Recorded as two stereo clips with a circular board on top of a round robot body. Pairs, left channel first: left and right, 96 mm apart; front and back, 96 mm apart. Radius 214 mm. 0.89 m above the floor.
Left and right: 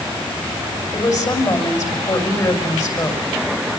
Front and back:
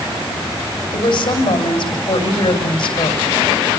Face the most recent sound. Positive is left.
turn(degrees=40)